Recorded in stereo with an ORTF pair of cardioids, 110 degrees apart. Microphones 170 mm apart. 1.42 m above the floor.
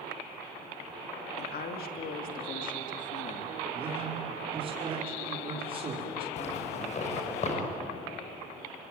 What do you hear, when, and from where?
1.4 s a woman speaking: 65° left, 2.5 m; by 3.6 s 40° left, 2.5 m
3.7 s a man speaking: 35° right, 4.5 m
6.4 s a zipper: 45° left, 6 m